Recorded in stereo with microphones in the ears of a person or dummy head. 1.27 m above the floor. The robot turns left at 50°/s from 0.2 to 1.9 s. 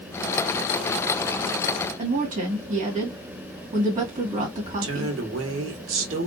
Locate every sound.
2.0 s a woman speaking: 45° right (ahead or behind), 1.6 m
4.8 s a woman speaking: 70° right (ahead or behind), 1.4 m